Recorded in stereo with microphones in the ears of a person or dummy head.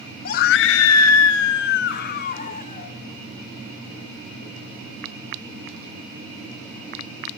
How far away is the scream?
About 0.8 m.